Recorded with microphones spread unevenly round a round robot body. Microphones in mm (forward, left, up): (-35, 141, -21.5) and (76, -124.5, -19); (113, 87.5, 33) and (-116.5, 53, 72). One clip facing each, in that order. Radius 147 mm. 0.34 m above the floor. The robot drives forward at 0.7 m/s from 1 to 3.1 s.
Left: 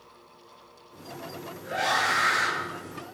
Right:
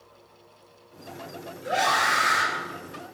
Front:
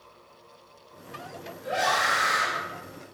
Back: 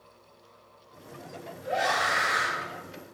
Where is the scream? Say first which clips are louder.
Right 3 dB, even; 70° right, 8 m.